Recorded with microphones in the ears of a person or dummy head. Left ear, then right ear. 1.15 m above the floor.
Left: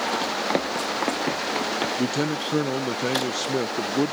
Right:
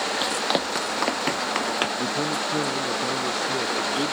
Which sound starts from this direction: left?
A man speaking, at 2.0 s.